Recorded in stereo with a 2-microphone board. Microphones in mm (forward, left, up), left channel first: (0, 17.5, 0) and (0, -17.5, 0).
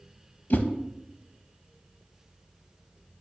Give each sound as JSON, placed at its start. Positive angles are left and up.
{"t": 0.5, "sound": "a whoosh", "side_deg": 60, "distance_m": 0.5}